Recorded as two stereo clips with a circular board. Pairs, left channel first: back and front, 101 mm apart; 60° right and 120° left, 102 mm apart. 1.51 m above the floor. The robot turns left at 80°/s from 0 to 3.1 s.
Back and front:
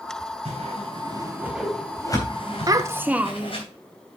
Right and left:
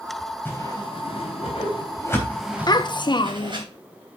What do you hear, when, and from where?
0.5 s a whoosh: 10° left, 3.5 m; by 3.6 s 155° left, 3.5 m
2.7 s a child speaking: 35° right, 0.6 m; by 3.6 s 70° right, 0.6 m